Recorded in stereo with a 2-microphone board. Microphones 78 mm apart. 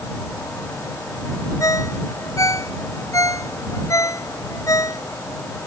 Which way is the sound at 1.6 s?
40° left (ahead or behind).